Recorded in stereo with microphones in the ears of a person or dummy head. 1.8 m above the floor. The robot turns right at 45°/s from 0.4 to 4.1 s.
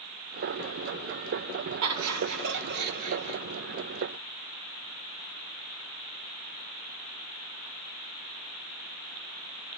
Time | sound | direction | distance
1.8 | laughter | 105° right | 2 m